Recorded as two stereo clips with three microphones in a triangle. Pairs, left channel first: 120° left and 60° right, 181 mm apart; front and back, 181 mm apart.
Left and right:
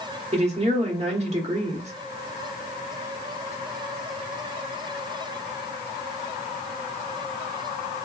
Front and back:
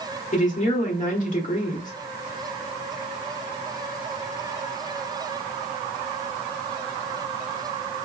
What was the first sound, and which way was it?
A woman speaking, 20° right.